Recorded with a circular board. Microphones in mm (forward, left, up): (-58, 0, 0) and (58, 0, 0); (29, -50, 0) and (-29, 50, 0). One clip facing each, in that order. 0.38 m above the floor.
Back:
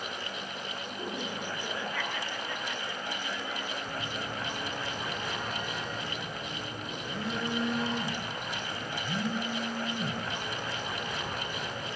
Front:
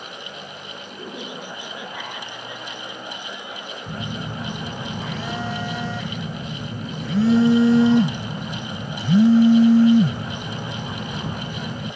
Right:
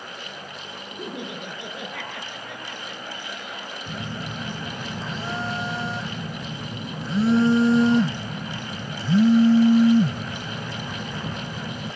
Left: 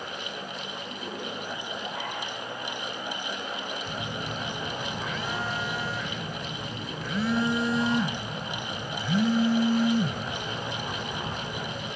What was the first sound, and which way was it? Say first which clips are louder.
Laughter: front 3 dB, right 4 dB; 75° right.